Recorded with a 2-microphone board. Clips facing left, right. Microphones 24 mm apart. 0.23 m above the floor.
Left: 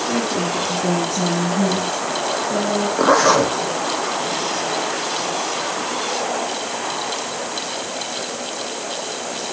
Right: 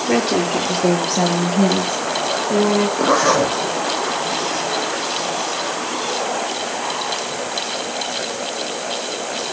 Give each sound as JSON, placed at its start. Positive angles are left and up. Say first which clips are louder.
{"t": 0.1, "sound": "a woman speaking", "louder": "right 7 dB", "side_deg": -75, "distance_m": 5.0}
{"t": 3.0, "sound": "a zipper", "louder": "left 4 dB", "side_deg": 15, "distance_m": 2.0}